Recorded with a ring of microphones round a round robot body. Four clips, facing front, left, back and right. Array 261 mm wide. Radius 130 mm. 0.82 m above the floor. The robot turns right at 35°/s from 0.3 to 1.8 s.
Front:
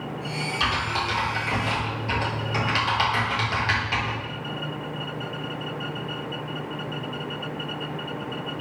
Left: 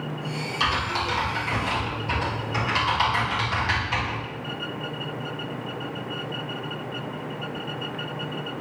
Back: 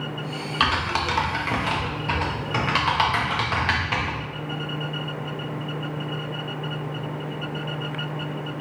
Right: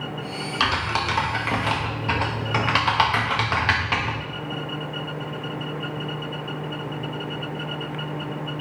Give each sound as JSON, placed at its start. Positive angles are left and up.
{"t": 0.6, "sound": "typing on a keyboard", "azimuth_deg": -150, "distance_m": 0.9}